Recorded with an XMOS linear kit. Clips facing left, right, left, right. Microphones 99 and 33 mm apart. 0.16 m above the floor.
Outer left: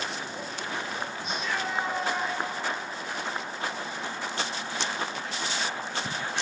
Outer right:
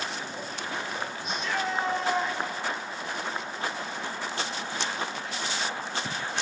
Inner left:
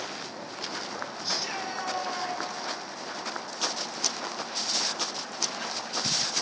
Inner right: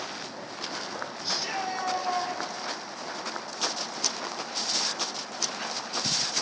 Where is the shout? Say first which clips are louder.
Outer right 2 dB, inner right 3 dB; centre (ahead or behind), 1.8 m; by 2.4 s 15° left (ahead or behind), 2.5 m.